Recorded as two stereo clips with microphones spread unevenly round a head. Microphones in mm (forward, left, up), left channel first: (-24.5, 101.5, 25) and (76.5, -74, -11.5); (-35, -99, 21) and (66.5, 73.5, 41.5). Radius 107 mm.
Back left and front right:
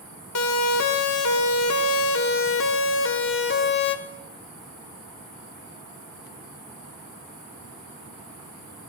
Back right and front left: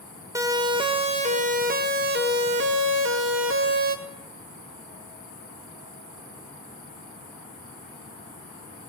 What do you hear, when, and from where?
0.3 s a siren: 135° left, 2 m; by 4.0 s 85° left, 3.5 m